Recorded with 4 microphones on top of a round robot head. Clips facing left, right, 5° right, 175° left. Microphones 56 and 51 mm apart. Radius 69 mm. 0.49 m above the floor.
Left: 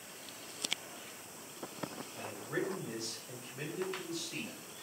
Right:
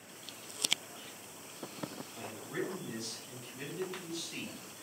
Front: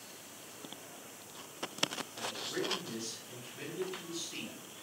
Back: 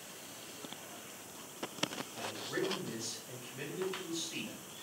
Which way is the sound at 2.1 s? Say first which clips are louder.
Left 2 dB, back 1 dB; 110° left.